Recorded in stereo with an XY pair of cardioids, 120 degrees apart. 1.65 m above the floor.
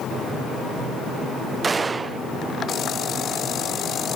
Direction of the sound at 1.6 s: 30° right.